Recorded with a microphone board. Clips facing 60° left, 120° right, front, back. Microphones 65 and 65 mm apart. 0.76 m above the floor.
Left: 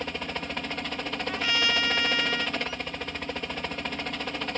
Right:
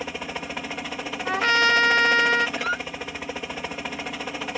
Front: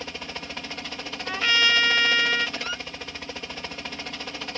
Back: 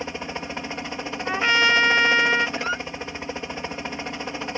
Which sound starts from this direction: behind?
A helicopter, at 0.0 s.